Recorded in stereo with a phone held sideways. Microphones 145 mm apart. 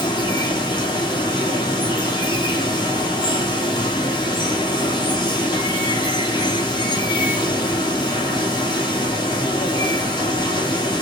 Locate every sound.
0.0 s running water: 30° left (ahead or behind), 2.0 m